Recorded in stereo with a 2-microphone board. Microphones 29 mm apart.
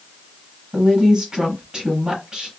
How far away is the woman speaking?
About 1.7 m.